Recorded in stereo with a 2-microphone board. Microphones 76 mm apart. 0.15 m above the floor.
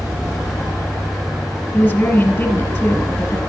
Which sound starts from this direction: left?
A woman speaking, at 1.7 s.